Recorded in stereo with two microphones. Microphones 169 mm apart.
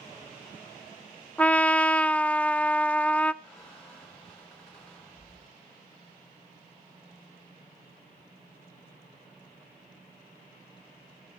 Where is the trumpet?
10° left (ahead or behind), 0.5 m.